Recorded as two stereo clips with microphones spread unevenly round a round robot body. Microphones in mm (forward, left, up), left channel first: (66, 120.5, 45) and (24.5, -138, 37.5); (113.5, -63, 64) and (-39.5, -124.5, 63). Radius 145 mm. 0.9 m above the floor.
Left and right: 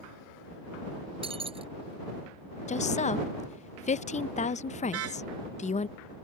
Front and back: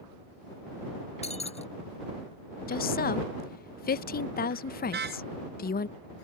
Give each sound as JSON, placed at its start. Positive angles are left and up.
{"t": 1.2, "sound": "breaking glass", "azimuth_deg": -30}
{"t": 2.7, "sound": "a woman speaking", "azimuth_deg": 20}
{"t": 4.9, "sound": "a car horn", "azimuth_deg": -145}